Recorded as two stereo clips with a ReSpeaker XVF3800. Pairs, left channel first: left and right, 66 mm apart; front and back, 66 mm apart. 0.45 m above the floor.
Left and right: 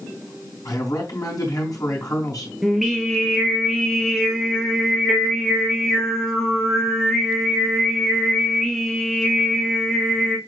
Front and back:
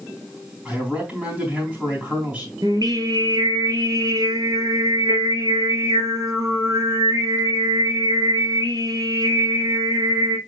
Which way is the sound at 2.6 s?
Straight behind.